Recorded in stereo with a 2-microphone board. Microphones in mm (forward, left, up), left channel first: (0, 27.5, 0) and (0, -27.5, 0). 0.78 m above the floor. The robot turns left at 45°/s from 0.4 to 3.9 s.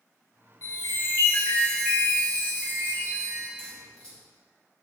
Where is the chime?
65° left, 1.1 m; by 3.5 s 65° right, 1.1 m.